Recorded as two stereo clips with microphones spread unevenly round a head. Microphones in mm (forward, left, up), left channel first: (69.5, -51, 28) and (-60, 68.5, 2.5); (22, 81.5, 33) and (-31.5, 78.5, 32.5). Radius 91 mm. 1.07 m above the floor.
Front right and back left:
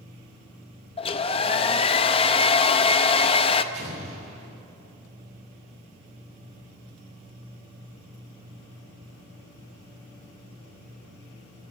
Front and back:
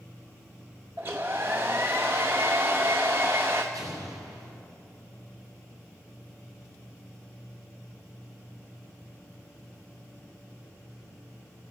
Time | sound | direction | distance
1.0 | a hair dryer | 105° right | 0.7 m
3.7 | an explosion | 170° right | 4.5 m